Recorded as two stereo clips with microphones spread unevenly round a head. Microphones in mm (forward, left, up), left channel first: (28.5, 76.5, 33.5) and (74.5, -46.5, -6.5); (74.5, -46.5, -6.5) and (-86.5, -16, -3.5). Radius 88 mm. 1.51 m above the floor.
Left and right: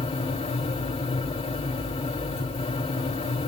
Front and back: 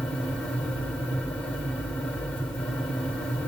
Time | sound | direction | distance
0.0 | a fan | 75° left | 3 m